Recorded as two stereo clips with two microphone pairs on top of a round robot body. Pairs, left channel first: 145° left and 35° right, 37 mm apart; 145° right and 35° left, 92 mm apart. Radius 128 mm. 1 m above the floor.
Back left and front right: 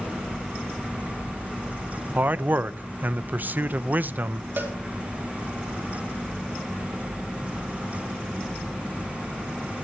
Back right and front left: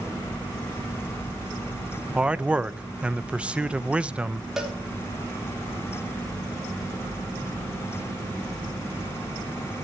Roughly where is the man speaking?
Ahead right.